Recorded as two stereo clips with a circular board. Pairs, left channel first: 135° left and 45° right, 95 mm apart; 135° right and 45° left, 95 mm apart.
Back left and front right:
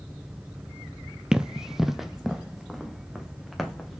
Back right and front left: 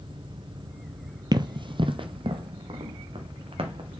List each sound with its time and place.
1.3 s running footsteps: 35° left, 0.6 m; by 4.0 s 45° left, 2 m